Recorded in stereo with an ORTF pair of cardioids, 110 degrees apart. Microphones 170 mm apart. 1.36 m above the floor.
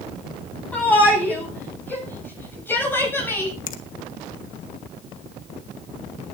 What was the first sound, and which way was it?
A shout, 10° left.